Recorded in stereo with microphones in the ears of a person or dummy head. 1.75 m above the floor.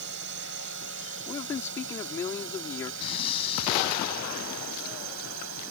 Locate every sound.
0.0 s a drone: 70° right (ahead or behind); by 5.7 s 85° right
1.3 s a man speaking: 20° left (ahead or behind)
3.0 s breathing: 35° left (ahead or behind)